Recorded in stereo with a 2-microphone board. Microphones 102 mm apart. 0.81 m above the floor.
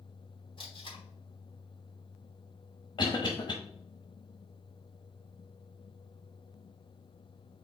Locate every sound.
0.6 s tape being pulled: 55° left (ahead or behind), 2 m
3.0 s a cough: 50° left (ahead or behind), 0.9 m